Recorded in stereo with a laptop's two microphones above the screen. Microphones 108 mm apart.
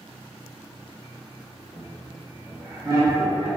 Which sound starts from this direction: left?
Laughter, at 1.7 s.